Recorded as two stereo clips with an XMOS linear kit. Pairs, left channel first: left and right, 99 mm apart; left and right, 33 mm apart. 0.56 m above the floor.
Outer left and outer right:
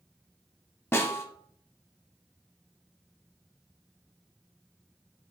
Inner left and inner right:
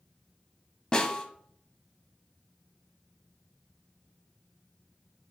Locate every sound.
0.9 s a snare drum: 25° left (ahead or behind), 0.6 m